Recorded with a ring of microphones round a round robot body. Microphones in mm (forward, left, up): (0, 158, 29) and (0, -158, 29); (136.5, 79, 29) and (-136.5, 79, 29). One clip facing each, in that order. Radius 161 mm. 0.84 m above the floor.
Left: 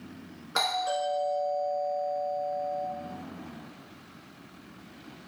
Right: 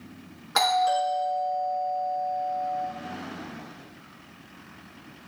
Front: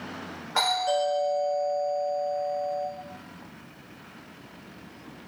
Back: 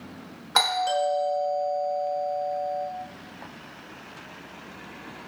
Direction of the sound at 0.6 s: 170° right.